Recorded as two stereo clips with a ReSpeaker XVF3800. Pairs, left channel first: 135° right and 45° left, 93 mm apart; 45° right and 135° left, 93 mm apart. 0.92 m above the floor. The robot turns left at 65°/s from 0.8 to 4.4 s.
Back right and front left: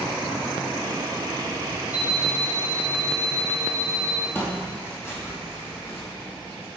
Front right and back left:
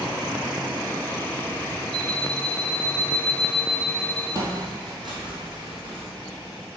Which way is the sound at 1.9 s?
30° right.